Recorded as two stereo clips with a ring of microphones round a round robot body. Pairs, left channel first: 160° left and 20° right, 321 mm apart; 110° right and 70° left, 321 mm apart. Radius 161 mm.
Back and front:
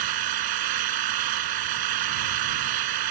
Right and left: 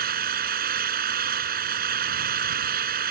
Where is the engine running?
5° left.